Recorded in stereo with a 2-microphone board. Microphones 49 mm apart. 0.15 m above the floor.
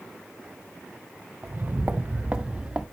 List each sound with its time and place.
1.4 s footsteps: 45° right (ahead or behind), 1.0 m; by 2.8 s 15° right (ahead or behind), 1.5 m